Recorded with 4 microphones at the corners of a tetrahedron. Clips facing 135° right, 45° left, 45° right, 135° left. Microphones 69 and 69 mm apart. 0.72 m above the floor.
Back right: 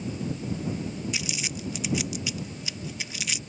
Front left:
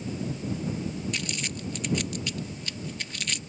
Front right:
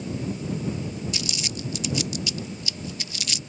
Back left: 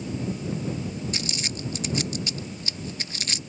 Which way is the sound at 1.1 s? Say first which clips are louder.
Even, even; 145° left.